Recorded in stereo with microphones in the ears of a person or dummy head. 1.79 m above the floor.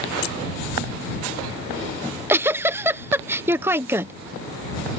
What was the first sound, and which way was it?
Keys jangling, 75° left (ahead or behind).